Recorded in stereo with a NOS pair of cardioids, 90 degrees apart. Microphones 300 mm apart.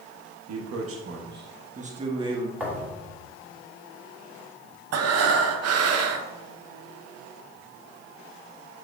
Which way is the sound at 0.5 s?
65° right.